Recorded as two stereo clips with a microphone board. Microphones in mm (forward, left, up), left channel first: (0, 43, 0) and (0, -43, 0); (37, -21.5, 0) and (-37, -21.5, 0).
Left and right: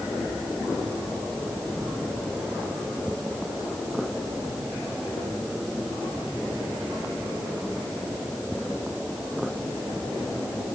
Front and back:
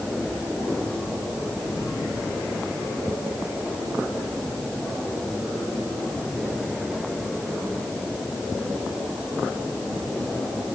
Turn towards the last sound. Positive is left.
No sound to turn to.